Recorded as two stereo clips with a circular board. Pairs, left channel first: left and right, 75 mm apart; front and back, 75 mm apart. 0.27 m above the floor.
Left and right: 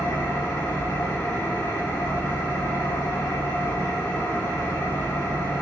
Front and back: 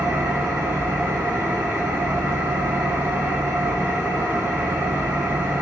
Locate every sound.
0.0 s an engine running: 120° left, 1.0 m